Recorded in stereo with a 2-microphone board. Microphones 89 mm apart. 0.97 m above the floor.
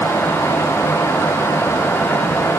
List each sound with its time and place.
Only background noise.